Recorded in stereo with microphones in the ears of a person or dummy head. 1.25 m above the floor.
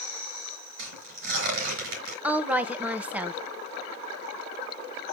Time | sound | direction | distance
0.8 | tearing paper | 55° right (ahead or behind) | 4.5 m
2.2 | a woman speaking | 10° right (ahead or behind) | 1.0 m